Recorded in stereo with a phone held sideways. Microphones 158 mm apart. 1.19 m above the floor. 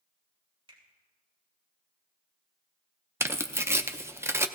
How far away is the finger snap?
About 3.5 m.